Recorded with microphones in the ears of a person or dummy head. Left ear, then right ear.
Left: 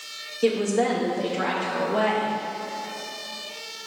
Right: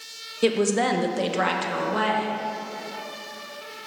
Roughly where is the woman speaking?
Right.